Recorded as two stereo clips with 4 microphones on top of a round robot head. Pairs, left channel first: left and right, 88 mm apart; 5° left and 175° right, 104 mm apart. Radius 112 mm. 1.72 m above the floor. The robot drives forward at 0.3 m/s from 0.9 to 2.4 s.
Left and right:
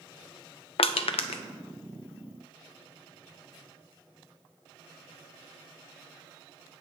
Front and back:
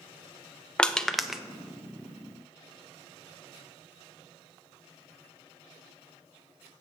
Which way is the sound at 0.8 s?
85° left.